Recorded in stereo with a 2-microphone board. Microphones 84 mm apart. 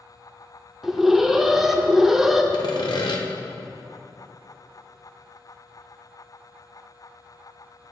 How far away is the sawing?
About 1.0 m.